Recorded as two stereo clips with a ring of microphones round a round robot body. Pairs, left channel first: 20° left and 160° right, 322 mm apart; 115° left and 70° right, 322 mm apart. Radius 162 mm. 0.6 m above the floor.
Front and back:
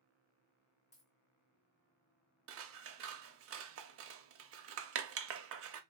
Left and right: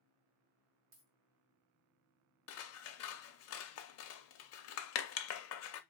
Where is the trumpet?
I don't hear a trumpet.